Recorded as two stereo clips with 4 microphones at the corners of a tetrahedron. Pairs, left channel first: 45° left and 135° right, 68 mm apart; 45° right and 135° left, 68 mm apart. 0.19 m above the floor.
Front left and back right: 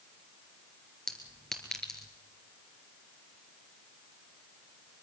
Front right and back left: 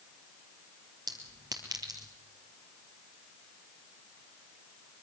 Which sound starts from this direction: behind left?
A clink, at 1.1 s.